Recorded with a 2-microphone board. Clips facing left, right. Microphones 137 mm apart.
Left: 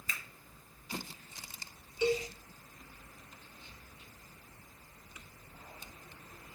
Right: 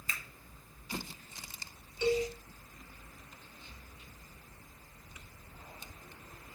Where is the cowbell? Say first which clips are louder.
Right 1 dB; 10° left (ahead or behind), 0.7 m.